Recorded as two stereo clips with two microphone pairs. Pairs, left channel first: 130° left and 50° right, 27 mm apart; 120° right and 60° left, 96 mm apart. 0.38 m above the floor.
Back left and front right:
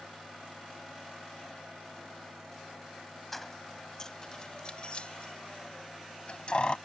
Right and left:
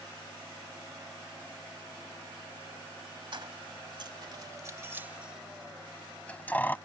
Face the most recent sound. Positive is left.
turn(degrees=170)